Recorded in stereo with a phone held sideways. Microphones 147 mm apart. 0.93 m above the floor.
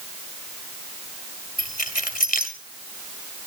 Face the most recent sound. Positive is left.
turn(degrees=70)  # may be behind; listen again after turning